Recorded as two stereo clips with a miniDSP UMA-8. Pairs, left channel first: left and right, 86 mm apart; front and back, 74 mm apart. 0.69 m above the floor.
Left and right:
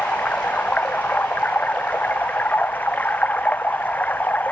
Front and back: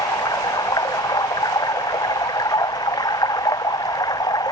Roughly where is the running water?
Ahead.